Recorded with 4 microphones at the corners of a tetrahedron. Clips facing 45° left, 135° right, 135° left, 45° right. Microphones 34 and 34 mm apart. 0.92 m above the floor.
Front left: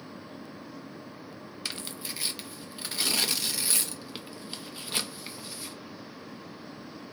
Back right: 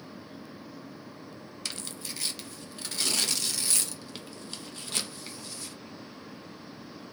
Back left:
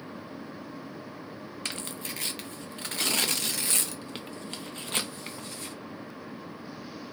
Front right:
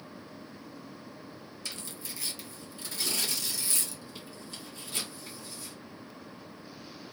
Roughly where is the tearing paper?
Behind left.